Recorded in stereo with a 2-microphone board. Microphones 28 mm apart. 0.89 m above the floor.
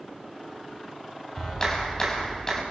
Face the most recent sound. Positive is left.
turn(degrees=20)  # may be behind; listen again after turning